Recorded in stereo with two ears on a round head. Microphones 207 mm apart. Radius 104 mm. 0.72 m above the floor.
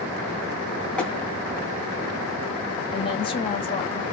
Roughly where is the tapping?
Centre.